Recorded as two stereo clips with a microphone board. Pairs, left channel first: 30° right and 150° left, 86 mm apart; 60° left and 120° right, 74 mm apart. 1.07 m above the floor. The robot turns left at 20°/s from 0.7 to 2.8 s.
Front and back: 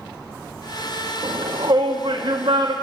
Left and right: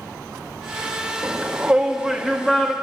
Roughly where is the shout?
Behind.